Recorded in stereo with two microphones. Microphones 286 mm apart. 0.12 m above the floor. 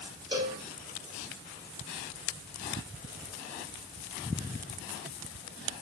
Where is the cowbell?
15° right (ahead or behind), 1.3 m.